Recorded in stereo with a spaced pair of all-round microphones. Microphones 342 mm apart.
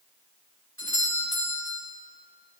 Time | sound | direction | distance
0.8 | a doorbell | 40° right (ahead or behind) | 2.5 m